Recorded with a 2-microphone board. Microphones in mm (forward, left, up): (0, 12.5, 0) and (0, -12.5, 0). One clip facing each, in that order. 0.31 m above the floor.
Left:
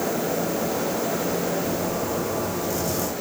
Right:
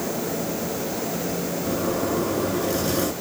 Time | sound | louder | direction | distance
1.6 | a zipper | right 1 dB | 45° right (ahead or behind) | 2.5 m